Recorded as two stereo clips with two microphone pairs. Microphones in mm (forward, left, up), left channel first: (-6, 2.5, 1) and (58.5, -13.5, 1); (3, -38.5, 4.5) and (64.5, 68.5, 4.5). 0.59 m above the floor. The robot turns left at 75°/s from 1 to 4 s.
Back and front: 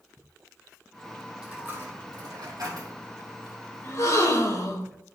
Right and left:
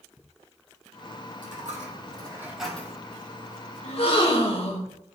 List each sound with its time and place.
1.4 s a dropped coin: 65° left, 3.5 m; by 2.9 s 50° right, 3.5 m
3.8 s a gasp: 145° right, 1.4 m; by 4.9 s 155° right, 1.4 m